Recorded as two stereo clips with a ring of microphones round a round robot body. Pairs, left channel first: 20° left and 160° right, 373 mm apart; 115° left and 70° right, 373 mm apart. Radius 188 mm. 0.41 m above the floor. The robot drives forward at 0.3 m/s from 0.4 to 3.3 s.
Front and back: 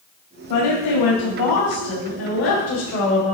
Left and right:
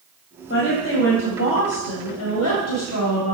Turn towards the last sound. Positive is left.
turn(degrees=75)